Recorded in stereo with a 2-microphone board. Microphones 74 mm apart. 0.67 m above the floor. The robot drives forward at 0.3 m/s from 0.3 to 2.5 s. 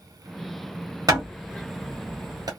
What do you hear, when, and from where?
1.1 s hammering: 60° right (ahead or behind), 1.6 m